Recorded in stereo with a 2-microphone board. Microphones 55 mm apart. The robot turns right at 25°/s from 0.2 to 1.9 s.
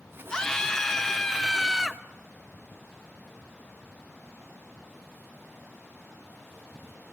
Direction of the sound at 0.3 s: 10° left (ahead or behind).